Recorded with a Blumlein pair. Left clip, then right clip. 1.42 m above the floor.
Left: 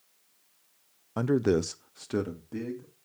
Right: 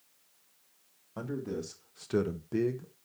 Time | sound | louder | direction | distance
1.2 | a man speaking | left 11 dB | 65° left | 0.6 m